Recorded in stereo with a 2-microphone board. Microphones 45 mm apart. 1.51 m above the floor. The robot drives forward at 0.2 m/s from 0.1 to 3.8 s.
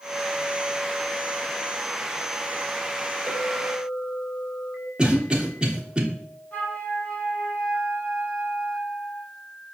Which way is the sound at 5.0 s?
20° right (ahead or behind).